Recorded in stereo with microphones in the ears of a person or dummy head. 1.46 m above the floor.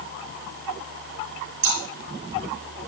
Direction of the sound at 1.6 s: 65° right (ahead or behind).